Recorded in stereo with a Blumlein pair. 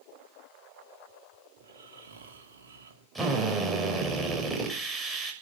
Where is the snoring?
60° right, 2.5 m.